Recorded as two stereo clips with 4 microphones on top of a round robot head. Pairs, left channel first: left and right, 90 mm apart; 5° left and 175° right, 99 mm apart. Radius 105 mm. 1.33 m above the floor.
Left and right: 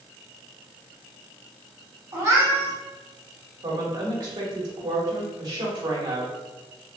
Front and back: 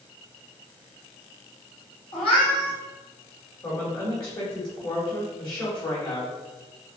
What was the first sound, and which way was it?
A cat meowing, 40° right.